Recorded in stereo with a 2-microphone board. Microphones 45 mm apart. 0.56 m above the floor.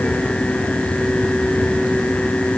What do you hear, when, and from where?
Only background noise.